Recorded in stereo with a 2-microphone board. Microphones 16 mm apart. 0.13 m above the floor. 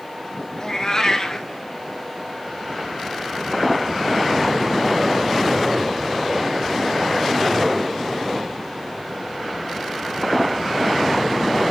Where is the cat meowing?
35° left (ahead or behind), 0.9 m.